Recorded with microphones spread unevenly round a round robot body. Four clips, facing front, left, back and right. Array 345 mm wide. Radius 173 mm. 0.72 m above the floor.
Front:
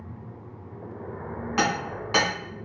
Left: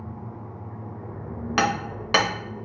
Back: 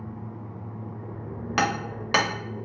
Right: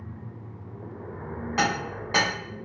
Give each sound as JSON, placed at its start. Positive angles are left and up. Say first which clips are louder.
{"t": 1.6, "sound": "hammering", "louder": "left 3 dB, even", "azimuth_deg": 125, "distance_m": 0.9}